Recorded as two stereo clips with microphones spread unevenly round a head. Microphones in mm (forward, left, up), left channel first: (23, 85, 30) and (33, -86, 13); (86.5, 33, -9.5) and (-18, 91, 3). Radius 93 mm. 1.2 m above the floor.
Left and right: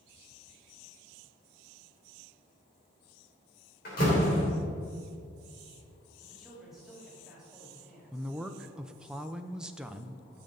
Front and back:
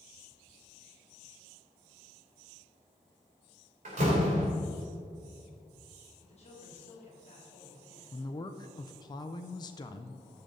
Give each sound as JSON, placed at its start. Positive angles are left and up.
{"t": 3.9, "sound": "a door slam", "azimuth_deg": 135, "distance_m": 3.5}
{"t": 6.2, "sound": "a man speaking", "azimuth_deg": 0, "distance_m": 3.0}
{"t": 8.1, "sound": "a woman speaking", "azimuth_deg": -10, "distance_m": 0.6}